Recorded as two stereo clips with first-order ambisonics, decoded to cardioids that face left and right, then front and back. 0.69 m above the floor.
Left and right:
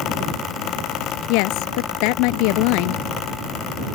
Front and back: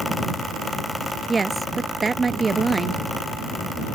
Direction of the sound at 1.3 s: 105° left.